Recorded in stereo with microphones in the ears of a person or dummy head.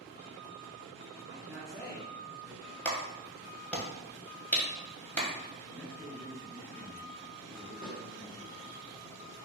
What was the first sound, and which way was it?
A man speaking, 25° right (ahead or behind).